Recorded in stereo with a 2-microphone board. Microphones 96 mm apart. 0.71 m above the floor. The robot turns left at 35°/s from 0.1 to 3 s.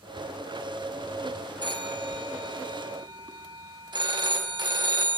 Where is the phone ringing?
65° right, 0.7 m; by 5.2 s 115° right, 0.7 m.